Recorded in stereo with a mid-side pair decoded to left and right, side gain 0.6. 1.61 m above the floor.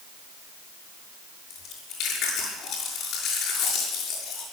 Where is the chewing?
65° left, 6.5 m.